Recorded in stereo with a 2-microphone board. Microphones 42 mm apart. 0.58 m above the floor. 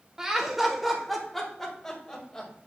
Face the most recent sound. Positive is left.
turn(degrees=20)  # may be behind; listen again after turning